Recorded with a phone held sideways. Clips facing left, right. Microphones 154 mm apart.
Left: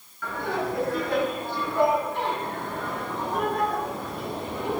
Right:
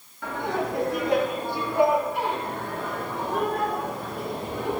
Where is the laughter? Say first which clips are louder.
Right 1 dB; 25° right (ahead or behind), 4.5 m; by 4.8 s centre (ahead or behind), 9.5 m.